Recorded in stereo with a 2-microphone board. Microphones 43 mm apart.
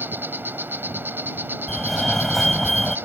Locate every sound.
0.0 s an insect: 60° right (ahead or behind)
1.7 s a fire alarm: 5° left (ahead or behind)